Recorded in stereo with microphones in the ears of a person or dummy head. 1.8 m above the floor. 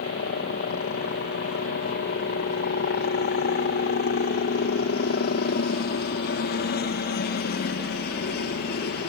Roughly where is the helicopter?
Left.